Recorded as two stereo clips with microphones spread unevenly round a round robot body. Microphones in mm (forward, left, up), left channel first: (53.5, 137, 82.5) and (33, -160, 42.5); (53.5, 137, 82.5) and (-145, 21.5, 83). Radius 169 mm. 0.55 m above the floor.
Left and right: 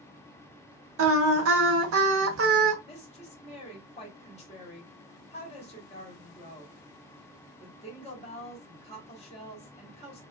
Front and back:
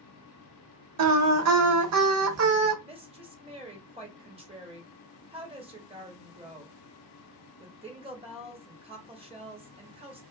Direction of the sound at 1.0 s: 140° right.